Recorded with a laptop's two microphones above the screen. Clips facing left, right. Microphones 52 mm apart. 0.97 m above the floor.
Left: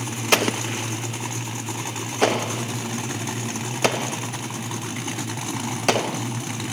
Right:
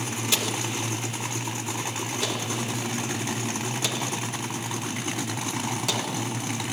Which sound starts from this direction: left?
An explosion, at 0.3 s.